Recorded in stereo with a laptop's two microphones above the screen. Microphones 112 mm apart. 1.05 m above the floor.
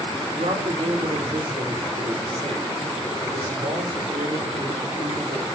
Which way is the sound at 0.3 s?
70° right (ahead or behind).